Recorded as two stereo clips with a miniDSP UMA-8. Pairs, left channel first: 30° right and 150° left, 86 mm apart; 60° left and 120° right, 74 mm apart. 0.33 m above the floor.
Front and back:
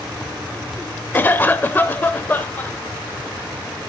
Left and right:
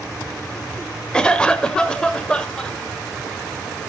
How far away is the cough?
About 0.9 m.